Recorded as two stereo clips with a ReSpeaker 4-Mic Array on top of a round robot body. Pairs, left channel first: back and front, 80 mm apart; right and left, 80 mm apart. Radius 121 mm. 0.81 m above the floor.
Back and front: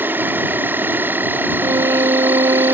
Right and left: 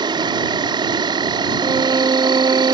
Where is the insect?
65° left.